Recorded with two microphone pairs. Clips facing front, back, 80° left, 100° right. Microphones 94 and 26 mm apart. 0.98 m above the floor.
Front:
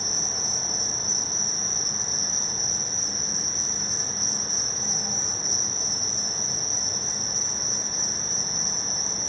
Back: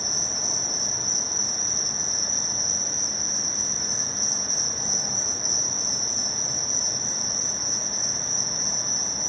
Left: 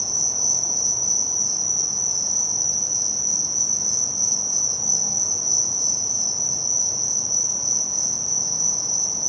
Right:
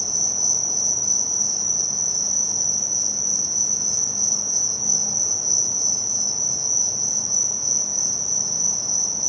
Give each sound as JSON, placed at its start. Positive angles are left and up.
{"t": 0.0, "sound": "an insect", "azimuth_deg": 180, "distance_m": 2.5}